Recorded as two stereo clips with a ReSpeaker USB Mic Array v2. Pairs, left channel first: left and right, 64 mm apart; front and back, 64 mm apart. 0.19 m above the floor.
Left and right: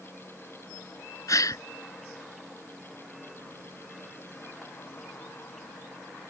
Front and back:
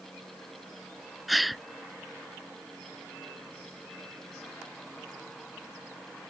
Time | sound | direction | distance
1.3 | a gasp | 90° left | ?